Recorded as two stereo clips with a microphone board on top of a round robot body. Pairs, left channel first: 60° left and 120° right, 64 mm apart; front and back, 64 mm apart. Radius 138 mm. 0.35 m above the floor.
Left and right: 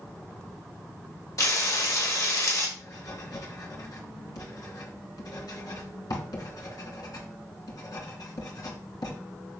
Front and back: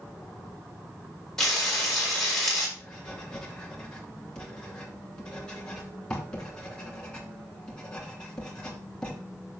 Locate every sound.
1.4 s frying: 80° left, 4.5 m
2.8 s writing: 75° left, 2.5 m